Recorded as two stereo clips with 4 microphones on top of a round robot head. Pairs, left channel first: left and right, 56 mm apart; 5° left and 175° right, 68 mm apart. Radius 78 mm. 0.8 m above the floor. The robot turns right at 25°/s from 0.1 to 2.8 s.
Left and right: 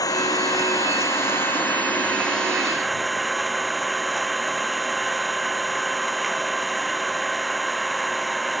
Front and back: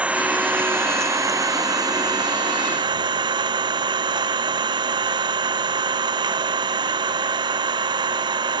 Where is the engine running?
115° left; by 8.6 s straight behind.